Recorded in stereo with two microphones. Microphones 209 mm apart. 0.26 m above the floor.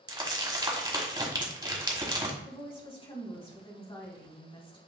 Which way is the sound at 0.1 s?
20° right (ahead or behind).